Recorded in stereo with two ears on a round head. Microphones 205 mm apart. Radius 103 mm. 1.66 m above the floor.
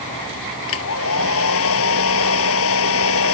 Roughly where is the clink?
No clink in this recording.